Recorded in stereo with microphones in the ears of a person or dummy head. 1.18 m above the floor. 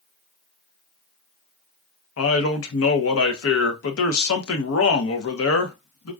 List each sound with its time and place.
2.2 s a man speaking: 65° left (ahead or behind), 0.8 m